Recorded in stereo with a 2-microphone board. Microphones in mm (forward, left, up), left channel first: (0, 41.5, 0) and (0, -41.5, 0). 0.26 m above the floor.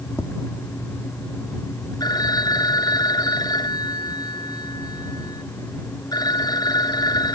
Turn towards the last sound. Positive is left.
turn(degrees=55)  # may be behind; listen again after turning